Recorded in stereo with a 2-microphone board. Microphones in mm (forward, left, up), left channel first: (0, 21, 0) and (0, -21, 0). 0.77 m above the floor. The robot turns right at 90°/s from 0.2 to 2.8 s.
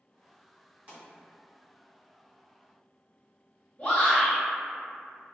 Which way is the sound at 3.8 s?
20° left (ahead or behind).